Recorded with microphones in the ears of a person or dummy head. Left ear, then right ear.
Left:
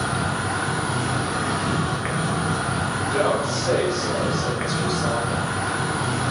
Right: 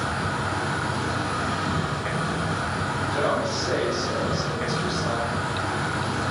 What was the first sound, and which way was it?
An insect, 25° left (ahead or behind).